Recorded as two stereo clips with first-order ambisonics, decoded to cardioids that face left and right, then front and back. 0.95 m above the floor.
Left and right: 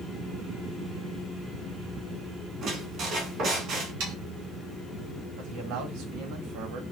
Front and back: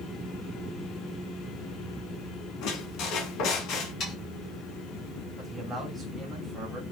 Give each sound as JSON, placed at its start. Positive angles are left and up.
{"t": 2.6, "sound": "a squeak", "azimuth_deg": -35, "distance_m": 1.9}
{"t": 4.0, "sound": "sawing", "azimuth_deg": -65, "distance_m": 5.0}
{"t": 5.4, "sound": "a man speaking", "azimuth_deg": -95, "distance_m": 3.0}